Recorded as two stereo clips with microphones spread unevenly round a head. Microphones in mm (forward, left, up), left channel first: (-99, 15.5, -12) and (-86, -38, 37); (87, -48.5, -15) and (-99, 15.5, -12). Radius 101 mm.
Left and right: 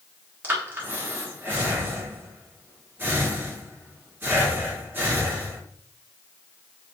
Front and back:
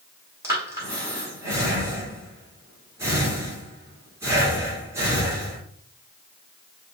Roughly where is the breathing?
Behind right.